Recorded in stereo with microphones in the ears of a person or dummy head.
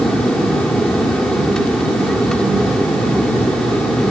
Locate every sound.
0.0 s an aircraft: 10° left (ahead or behind)